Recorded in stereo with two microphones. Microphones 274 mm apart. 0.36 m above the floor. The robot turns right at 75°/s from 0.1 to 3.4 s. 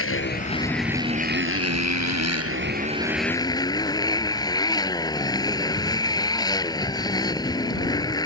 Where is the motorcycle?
125° left; by 8.3 s 15° left.